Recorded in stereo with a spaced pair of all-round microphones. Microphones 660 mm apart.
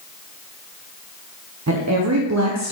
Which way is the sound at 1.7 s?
30° right (ahead or behind).